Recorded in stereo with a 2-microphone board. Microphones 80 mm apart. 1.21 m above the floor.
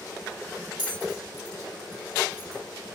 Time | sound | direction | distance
0.8 | a bell | 85° left | 2.5 m